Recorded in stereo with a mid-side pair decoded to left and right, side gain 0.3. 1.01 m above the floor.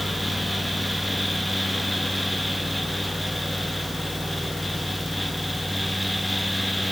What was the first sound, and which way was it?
A fan, straight ahead.